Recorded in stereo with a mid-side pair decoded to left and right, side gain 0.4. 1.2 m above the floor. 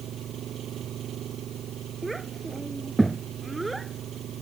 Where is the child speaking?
15° right.